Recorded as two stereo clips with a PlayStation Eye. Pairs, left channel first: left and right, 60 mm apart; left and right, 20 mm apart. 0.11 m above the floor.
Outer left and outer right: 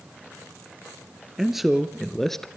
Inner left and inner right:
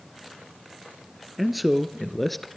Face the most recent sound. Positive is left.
turn(degrees=10)  # may be behind; listen again after turning